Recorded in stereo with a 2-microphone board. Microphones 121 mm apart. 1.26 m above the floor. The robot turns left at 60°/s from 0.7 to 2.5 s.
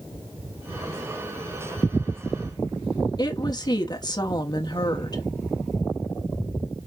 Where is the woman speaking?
35° left (ahead or behind), 0.9 m.